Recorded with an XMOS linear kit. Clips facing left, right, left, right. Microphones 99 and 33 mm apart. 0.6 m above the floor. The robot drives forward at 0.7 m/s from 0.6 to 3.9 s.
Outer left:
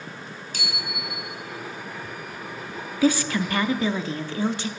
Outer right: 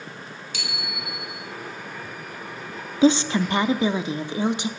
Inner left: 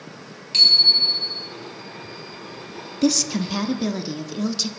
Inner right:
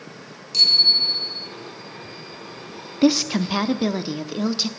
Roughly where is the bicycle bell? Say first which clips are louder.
Outer left 1 dB, inner left 1 dB; left.